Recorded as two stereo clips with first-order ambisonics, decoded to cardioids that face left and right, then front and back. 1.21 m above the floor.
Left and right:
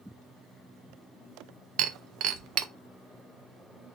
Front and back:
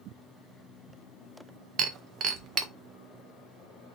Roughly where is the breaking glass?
Behind right.